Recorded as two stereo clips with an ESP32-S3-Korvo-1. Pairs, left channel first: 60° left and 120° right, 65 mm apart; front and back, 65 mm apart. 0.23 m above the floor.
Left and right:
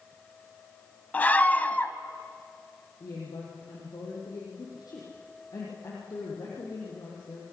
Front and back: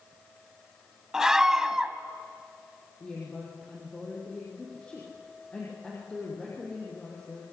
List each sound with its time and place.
1.1 s a scream: 105° left, 1.5 m
3.0 s a woman speaking: 75° left, 7.5 m